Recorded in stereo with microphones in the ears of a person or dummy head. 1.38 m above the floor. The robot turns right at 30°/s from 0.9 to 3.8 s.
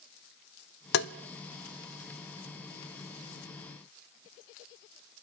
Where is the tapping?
65° left (ahead or behind), 0.6 m.